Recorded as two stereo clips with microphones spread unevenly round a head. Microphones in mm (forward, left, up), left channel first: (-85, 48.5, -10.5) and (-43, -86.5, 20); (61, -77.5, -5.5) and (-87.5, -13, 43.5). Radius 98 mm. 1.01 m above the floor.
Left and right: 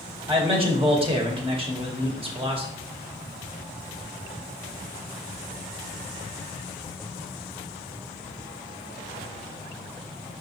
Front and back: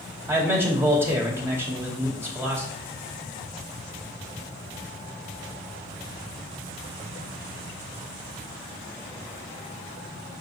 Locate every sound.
0.3 s a man speaking: 125° right, 2 m